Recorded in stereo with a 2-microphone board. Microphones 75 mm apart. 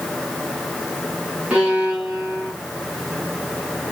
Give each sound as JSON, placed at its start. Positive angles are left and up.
{"t": 1.5, "sound": "a violin", "side_deg": -20, "distance_m": 3.0}